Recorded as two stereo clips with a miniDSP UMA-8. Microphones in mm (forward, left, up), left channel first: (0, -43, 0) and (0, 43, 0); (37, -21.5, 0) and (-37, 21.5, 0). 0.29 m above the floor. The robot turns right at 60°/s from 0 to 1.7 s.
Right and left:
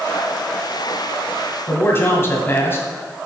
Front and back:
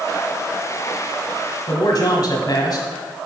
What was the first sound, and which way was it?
A man speaking, 40° right.